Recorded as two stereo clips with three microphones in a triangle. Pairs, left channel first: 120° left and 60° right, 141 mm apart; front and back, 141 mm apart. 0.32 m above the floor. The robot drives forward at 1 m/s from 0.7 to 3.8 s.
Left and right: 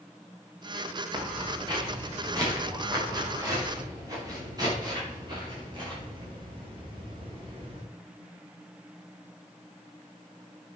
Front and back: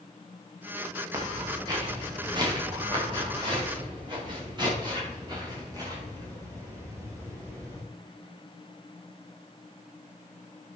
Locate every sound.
1.1 s footsteps: 115° right, 4.5 m; by 7.8 s 110° right, 7.5 m